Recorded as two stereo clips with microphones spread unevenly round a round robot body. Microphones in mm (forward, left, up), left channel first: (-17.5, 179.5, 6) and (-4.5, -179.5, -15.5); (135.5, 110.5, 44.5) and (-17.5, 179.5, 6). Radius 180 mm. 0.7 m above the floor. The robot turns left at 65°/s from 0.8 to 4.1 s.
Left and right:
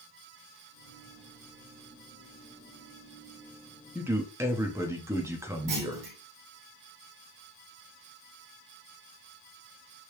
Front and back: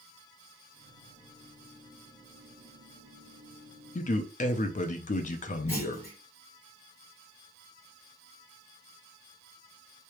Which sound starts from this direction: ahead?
A man speaking, at 4.0 s.